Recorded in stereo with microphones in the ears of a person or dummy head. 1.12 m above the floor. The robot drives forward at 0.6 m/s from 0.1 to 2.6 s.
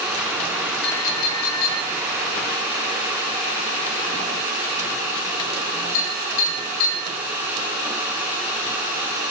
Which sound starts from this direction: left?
A clink, at 0.8 s.